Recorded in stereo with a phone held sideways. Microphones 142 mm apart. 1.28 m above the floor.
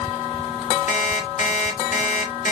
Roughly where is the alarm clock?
Left.